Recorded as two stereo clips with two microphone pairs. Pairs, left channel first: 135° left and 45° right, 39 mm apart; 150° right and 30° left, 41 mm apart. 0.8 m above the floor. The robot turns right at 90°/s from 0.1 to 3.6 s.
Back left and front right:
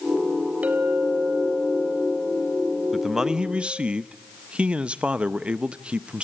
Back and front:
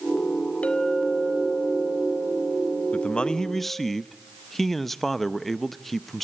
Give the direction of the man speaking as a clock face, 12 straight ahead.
4 o'clock.